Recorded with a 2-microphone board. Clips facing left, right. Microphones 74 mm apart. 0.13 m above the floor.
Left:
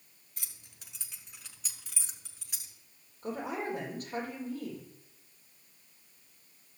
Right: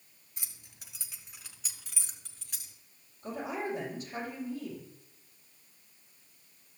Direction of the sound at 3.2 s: 55° left (ahead or behind).